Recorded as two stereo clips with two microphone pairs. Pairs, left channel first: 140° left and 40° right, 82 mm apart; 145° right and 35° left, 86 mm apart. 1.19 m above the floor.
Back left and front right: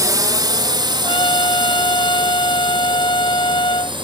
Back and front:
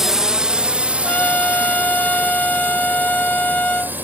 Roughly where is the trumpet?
Behind left.